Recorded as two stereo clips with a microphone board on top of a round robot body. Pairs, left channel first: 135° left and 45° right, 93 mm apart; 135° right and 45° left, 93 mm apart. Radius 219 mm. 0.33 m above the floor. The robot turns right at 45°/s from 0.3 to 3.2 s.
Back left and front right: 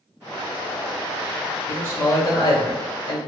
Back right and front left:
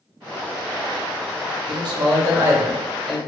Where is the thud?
I don't hear a thud.